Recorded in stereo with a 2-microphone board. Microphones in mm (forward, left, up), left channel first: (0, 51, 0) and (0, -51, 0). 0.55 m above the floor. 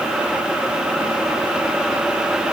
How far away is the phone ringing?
I don't hear a phone ringing.